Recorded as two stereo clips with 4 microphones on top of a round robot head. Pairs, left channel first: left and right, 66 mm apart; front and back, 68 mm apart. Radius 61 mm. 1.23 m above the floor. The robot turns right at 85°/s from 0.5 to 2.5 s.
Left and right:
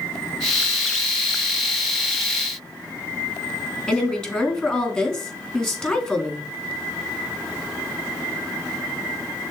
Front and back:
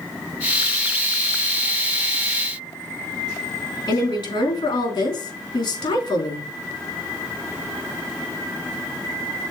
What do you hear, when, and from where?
3.9 s a woman speaking: 5° left, 3 m